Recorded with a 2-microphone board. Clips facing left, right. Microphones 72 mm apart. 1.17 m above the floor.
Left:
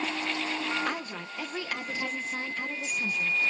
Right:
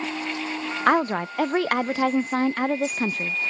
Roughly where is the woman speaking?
Right.